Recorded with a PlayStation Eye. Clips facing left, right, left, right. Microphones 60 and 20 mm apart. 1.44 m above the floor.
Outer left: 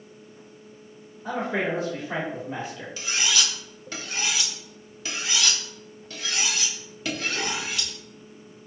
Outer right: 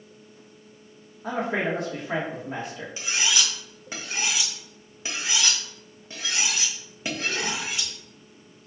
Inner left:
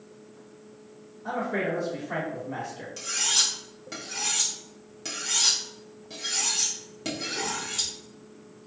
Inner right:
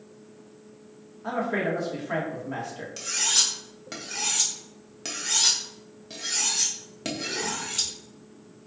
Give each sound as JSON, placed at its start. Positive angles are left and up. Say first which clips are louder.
{"t": 1.2, "sound": "a man speaking", "louder": "even, inner right 1 dB", "side_deg": -70, "distance_m": 1.3}
{"t": 3.0, "sound": "cutlery clinking", "louder": "even, inner right 1 dB", "side_deg": -25, "distance_m": 0.8}